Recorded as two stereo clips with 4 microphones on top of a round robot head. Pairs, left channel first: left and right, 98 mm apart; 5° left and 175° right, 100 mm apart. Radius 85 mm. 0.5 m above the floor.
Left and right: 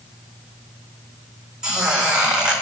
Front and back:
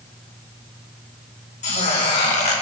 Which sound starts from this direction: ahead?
A squeak, at 1.6 s.